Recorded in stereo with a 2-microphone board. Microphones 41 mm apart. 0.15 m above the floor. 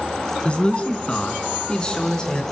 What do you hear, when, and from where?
0.5 s a man speaking: 30° left (ahead or behind), 1.7 m; by 2.4 s 20° left (ahead or behind), 2 m